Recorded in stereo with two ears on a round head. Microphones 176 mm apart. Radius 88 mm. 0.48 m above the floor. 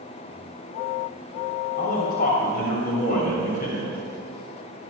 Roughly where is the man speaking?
Left.